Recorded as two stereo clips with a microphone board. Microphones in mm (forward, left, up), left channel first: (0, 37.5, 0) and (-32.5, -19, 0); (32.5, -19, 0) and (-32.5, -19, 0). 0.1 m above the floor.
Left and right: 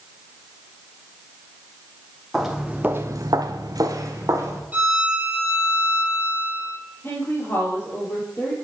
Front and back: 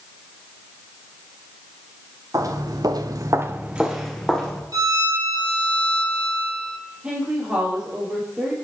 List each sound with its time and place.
2.3 s footsteps: 155° left, 1.1 m; by 4.6 s 80° right, 1.6 m
4.7 s a violin: 175° left, 1.8 m
7.0 s a woman speaking: 105° left, 3 m